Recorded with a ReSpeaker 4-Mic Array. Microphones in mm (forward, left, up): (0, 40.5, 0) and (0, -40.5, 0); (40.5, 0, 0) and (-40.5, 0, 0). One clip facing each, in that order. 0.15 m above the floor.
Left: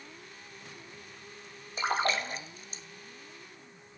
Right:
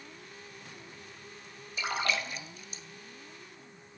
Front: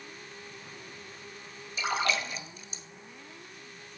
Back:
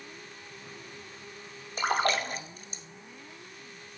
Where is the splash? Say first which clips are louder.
Left 3 dB, back 3 dB; 140° left, 1.1 m.